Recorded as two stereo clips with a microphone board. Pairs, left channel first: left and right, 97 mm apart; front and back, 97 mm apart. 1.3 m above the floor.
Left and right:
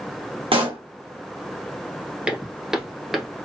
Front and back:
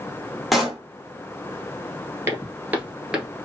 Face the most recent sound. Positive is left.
turn(degrees=165)